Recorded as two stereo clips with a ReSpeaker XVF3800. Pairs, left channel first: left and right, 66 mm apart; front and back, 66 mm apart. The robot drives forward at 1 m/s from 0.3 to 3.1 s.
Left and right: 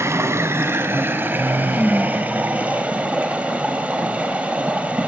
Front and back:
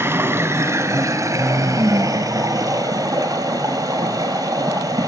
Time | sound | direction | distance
0.0 | running water | 130° right | 2 m